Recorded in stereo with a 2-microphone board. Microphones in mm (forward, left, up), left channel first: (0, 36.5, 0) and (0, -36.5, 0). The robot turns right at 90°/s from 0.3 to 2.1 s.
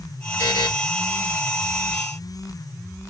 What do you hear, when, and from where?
0.4 s a buzzer: 40° left (ahead or behind), 1.5 m; by 0.7 s 65° left (ahead or behind), 1.5 m